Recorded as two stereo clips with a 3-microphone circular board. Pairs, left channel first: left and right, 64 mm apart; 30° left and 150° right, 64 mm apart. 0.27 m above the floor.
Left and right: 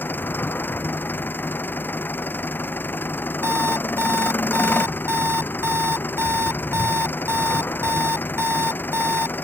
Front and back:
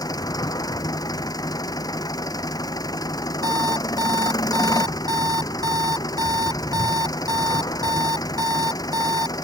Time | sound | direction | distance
0.0 | an engine running | 30° left | ?
3.4 | an alarm clock | 140° right | ?